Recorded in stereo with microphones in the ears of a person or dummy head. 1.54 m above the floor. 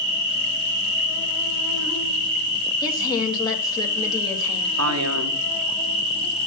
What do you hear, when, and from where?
0.0 s an insect: 65° left (ahead or behind), 4 m
2.8 s a woman speaking: 30° left (ahead or behind), 2 m
4.8 s a man speaking: 80° right, 1.7 m